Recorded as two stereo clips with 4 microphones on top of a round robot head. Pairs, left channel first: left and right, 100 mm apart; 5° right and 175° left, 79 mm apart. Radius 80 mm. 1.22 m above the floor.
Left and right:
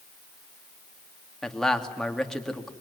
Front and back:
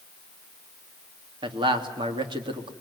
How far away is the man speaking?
About 3 m.